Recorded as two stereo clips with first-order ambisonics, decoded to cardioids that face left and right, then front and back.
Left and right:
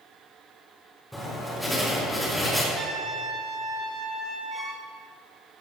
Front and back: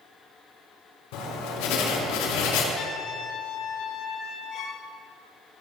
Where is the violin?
15° right, 1.5 m.